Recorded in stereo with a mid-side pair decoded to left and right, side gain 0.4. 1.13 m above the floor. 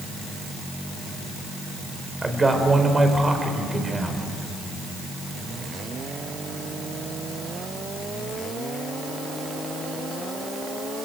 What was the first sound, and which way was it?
A man speaking, 25° right.